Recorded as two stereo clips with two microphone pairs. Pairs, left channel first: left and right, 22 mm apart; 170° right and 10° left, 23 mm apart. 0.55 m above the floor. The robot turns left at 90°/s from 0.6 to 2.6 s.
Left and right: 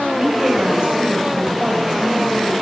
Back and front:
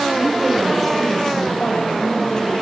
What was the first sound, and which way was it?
A woman speaking, 50° right.